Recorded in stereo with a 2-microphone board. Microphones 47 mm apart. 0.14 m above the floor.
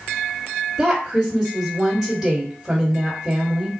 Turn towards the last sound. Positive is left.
turn(degrees=-5)  # may be behind; listen again after turning